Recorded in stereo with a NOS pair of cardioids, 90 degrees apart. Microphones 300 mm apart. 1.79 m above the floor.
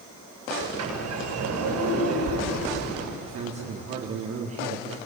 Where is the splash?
No splash in this recording.